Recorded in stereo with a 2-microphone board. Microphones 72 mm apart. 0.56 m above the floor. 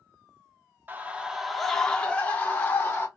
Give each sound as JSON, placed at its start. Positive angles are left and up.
{"t": 0.9, "sound": "a scream", "side_deg": -25, "distance_m": 0.7}